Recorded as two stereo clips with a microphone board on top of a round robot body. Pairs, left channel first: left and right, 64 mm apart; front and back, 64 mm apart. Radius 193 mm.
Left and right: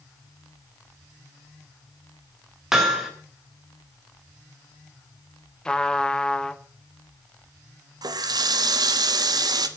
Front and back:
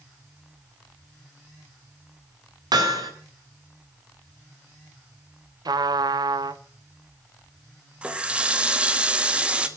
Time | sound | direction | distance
2.7 | hammering | 175° right | 3 m
5.7 | a trumpet | 165° left | 0.8 m
8.0 | a running tap | 110° right | 1.3 m